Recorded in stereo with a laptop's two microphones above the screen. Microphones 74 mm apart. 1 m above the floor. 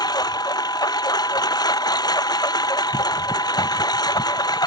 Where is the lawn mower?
70° left (ahead or behind).